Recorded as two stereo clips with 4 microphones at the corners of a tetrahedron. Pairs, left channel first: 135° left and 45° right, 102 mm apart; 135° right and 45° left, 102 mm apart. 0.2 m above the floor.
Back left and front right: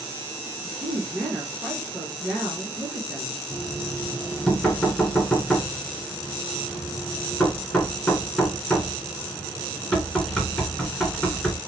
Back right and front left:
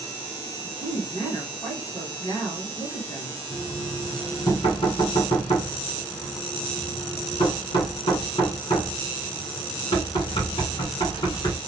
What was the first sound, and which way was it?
A woman speaking, 145° right.